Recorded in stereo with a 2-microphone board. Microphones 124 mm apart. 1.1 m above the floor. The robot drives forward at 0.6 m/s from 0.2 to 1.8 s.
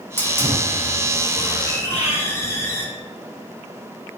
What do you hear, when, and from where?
0.2 s a hiss: 20° left (ahead or behind), 5 m; by 2.9 s 25° left (ahead or behind), 4.5 m
1.9 s breathing: 85° left, 5.5 m